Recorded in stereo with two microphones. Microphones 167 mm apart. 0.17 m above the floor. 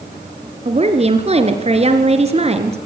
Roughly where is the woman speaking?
Right.